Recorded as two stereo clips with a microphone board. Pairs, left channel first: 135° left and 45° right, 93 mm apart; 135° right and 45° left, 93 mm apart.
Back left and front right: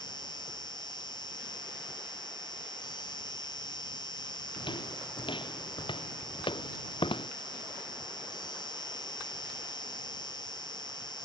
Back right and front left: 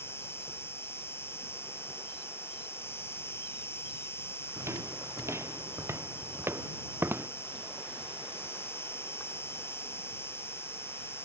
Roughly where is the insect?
Behind.